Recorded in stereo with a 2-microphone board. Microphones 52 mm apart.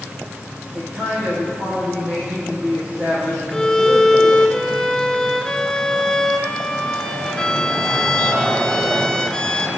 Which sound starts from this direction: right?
A man speaking, at 0.7 s.